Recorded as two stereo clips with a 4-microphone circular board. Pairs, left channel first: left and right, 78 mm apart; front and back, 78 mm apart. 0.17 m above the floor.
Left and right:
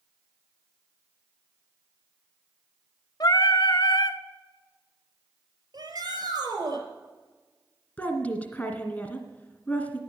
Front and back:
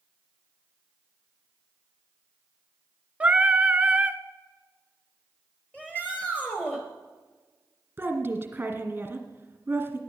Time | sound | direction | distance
3.2 | singing | 110° left | 0.7 m
5.7 | a shout | 70° right | 4 m
8.0 | a woman speaking | 135° left | 1.9 m